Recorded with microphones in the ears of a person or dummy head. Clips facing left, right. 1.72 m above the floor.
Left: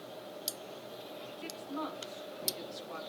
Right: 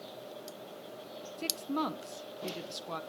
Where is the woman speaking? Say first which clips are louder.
Right 6 dB; 60° right (ahead or behind), 1.2 m.